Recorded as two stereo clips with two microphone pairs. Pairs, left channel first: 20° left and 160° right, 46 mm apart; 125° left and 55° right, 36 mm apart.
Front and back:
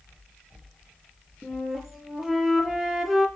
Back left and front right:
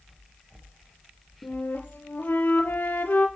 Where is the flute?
115° left, 6 m.